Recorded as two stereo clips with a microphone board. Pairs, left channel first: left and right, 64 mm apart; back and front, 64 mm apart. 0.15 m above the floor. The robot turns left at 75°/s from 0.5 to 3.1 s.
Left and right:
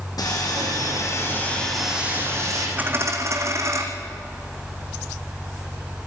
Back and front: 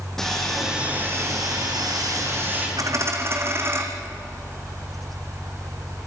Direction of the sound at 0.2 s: 95° left.